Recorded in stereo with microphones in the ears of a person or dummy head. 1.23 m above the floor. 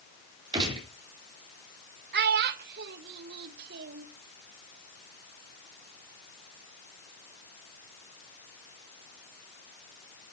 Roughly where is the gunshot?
Right.